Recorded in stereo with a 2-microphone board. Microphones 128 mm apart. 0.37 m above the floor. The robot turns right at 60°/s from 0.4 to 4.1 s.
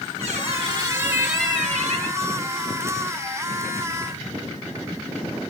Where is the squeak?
55° right, 4 m; by 2.2 s 50° left, 4 m.